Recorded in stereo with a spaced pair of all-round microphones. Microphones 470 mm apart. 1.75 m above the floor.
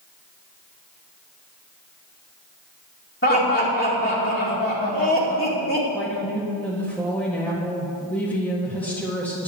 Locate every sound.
3.2 s laughter: 25° left (ahead or behind), 2 m
5.9 s a woman speaking: 5° left (ahead or behind), 1.8 m